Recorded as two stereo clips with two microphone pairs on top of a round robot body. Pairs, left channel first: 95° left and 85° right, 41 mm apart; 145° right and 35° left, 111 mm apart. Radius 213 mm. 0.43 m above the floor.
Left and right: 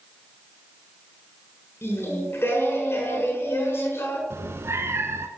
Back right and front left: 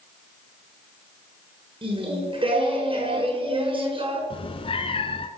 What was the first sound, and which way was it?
Singing, 70° left.